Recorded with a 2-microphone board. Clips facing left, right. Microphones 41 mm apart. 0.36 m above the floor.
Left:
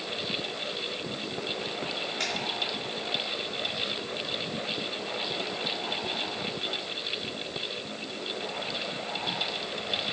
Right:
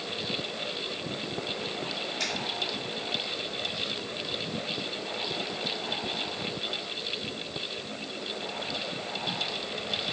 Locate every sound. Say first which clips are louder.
2.2 s a finger snap: even; 60° left (ahead or behind), 1.8 m